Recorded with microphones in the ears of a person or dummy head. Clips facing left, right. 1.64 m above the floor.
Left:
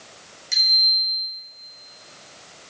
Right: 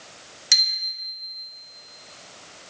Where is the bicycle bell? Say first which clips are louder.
Left 2 dB; 80° right, 5.5 m.